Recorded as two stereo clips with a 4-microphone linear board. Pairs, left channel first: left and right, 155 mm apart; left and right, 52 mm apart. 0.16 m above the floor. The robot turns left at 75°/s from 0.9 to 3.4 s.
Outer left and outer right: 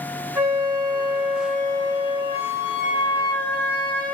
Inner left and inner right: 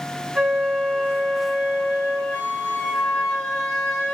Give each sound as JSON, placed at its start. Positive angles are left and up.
{"t": 0.3, "sound": "a flute", "azimuth_deg": -155, "distance_m": 1.2}